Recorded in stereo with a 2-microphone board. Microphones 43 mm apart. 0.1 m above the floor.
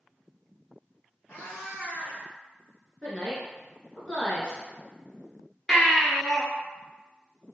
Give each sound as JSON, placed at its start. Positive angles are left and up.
{"t": 1.3, "sound": "a cat meowing", "side_deg": 65, "distance_m": 1.0}
{"t": 3.0, "sound": "a woman speaking", "side_deg": 15, "distance_m": 1.1}
{"t": 5.7, "sound": "a baby crying", "side_deg": 10, "distance_m": 0.7}